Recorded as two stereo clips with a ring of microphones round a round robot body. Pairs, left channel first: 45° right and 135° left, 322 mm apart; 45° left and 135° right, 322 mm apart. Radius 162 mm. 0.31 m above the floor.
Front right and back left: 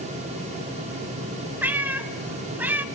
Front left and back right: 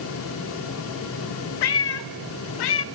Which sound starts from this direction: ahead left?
A cat meowing, at 1.6 s.